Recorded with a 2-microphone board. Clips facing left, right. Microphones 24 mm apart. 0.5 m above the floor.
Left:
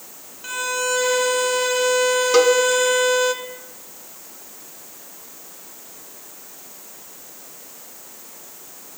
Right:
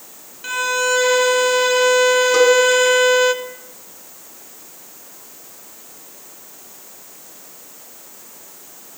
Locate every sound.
0.4 s a violin: 15° right (ahead or behind), 0.8 m
2.3 s a cowbell: 35° left (ahead or behind), 0.9 m